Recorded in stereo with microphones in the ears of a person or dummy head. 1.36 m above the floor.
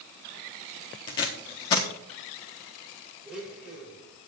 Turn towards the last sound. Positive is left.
turn(degrees=-5)  # may be behind; listen again after turning